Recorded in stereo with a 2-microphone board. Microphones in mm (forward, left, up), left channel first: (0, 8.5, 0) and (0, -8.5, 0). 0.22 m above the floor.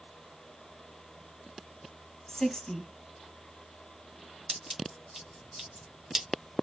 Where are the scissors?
25° right (ahead or behind), 1.9 m.